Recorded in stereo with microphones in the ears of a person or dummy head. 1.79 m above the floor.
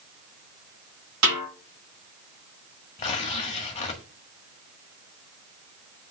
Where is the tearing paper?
30° left (ahead or behind), 1.2 m.